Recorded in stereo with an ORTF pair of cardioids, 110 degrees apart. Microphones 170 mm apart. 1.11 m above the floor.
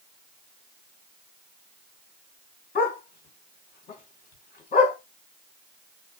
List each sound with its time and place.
2.8 s a dog barking: 55° left, 3 m